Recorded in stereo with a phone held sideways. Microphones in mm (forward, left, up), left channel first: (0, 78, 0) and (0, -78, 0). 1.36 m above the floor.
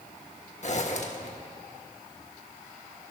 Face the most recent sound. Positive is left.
turn(degrees=50)  # may be behind; listen again after turning